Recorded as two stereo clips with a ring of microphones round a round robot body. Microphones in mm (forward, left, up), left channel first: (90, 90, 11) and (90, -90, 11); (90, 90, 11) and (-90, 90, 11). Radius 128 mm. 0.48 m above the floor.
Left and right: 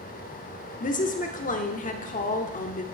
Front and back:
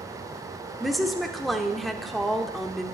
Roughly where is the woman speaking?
Left.